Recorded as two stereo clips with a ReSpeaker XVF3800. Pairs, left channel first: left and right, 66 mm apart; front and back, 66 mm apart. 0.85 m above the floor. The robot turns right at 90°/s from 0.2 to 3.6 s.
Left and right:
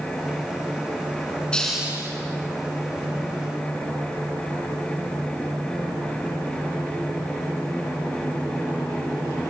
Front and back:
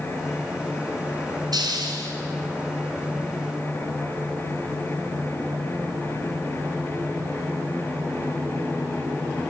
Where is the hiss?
165° left, 3.5 m; by 2.1 s 140° right, 3.5 m.